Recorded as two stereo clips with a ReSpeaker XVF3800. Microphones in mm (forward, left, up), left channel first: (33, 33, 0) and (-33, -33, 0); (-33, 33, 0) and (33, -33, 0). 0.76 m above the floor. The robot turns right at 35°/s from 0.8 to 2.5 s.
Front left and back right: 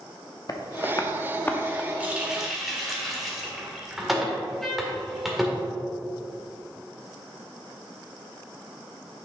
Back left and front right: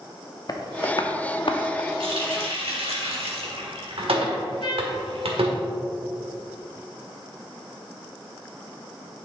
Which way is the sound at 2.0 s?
65° right.